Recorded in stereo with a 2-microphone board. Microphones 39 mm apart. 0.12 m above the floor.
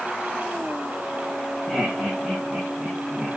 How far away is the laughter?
About 5 m.